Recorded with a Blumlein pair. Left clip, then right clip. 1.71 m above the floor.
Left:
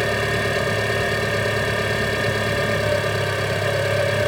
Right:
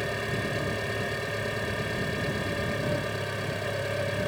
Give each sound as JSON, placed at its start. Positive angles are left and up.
{"t": 0.0, "sound": "an engine running", "azimuth_deg": 25}